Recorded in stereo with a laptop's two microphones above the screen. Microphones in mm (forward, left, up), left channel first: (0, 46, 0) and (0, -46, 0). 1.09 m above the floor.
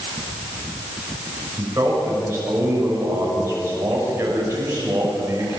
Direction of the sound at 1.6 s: 30° right (ahead or behind).